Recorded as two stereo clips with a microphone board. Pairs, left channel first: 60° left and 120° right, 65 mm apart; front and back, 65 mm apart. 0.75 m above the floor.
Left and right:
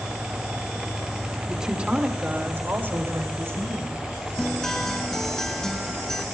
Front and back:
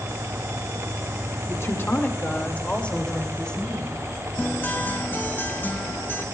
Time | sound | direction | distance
1.5 | a woman speaking | 35° right | 1.7 m
4.4 | a guitar | 20° right | 1.1 m